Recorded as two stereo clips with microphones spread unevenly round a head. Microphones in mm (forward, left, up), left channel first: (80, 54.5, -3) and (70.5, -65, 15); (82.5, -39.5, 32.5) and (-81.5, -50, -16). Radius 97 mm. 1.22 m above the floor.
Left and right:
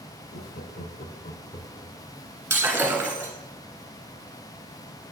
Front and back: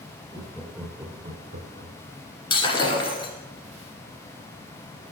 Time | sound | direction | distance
0.3 | laughter | 80° left | 0.8 m
2.5 | breaking glass | 30° right | 1.8 m